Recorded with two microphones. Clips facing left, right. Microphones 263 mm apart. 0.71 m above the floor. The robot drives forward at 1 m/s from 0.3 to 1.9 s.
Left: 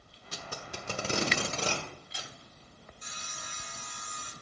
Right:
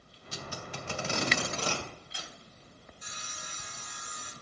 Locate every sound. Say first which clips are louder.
0.3 s tape being pulled: right 1 dB; 65° left (ahead or behind), 1.0 m; by 2.3 s 25° left (ahead or behind), 2 m
3.0 s sawing: left 1 dB; 15° right (ahead or behind), 1.5 m